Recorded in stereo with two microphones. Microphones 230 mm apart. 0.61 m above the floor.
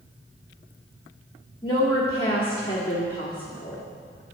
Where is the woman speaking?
20° left (ahead or behind), 1.4 m.